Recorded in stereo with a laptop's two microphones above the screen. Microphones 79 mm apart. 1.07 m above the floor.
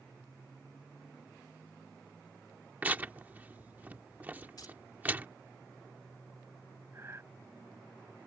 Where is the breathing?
35° right (ahead or behind).